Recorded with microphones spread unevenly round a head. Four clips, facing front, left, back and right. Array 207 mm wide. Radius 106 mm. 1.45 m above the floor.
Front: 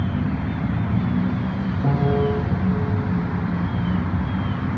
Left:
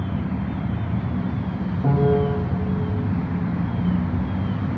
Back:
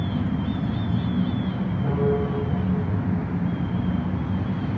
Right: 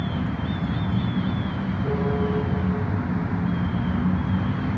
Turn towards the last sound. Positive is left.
turn(degrees=50)